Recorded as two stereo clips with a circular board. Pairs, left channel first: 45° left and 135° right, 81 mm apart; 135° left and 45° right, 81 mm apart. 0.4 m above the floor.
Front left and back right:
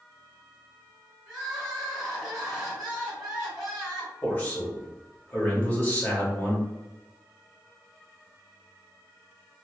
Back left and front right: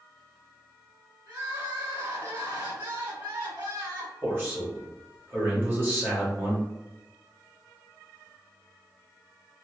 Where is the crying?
50° right, 1.9 m.